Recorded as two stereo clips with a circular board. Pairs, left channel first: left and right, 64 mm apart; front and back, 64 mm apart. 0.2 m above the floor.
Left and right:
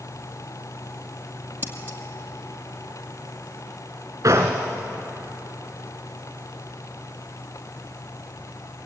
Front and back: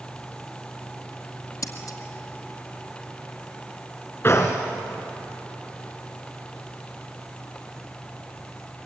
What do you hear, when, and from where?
1.6 s scissors: 35° right, 2 m
4.2 s a gunshot: 50° right, 3.5 m